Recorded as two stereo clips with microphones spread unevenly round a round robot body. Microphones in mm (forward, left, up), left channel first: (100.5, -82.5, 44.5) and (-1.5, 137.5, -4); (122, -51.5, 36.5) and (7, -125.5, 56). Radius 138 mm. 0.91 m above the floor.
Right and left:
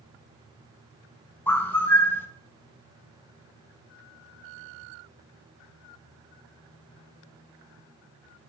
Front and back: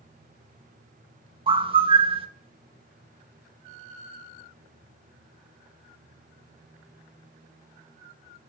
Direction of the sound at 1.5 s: 165° right.